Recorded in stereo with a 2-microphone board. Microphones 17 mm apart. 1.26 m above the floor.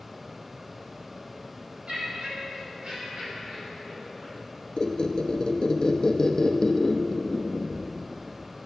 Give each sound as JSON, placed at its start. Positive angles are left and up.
{"t": 1.9, "sound": "laughter", "side_deg": -60, "distance_m": 2.5}
{"t": 4.8, "sound": "a squeak", "side_deg": 40, "distance_m": 0.5}